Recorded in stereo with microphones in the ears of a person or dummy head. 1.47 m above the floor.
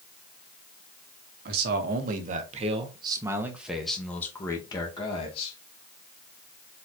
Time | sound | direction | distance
1.4 | a man speaking | 60° right (ahead or behind) | 1.4 m